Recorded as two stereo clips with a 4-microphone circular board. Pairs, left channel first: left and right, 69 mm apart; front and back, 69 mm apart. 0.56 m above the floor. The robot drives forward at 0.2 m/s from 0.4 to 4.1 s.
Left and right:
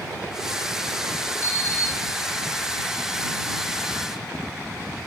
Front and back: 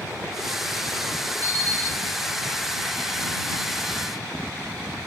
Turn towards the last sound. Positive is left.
turn(degrees=145)